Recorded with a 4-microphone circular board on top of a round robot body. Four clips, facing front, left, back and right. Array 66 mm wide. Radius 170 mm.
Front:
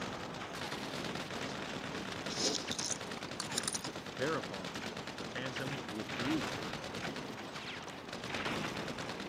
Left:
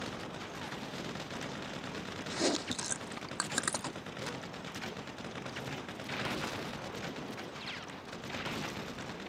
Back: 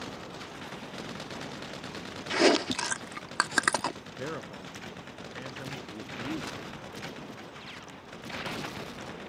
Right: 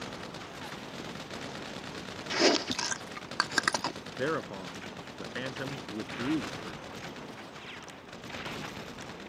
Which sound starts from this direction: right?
A man speaking, at 4.2 s.